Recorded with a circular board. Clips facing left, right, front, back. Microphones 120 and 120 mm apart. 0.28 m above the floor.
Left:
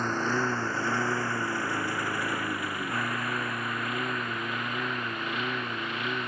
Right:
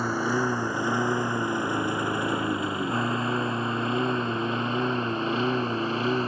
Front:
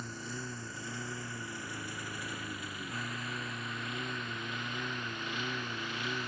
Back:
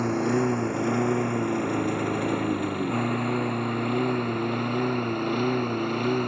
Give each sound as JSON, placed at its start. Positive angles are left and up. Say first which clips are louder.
{"t": 0.0, "sound": "a lawn mower", "louder": "right 3 dB, back 20 dB", "azimuth_deg": -170}